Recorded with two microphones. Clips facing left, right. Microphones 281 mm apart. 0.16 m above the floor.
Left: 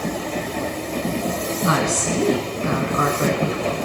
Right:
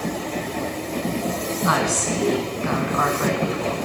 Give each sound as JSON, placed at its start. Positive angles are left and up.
{"t": 1.6, "sound": "a woman speaking", "side_deg": 30, "distance_m": 1.1}